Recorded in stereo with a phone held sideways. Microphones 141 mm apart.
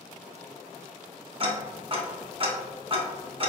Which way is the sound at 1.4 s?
40° right (ahead or behind).